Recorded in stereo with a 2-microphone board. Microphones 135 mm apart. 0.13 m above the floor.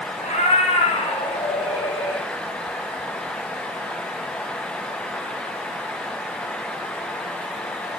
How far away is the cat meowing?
About 5 m.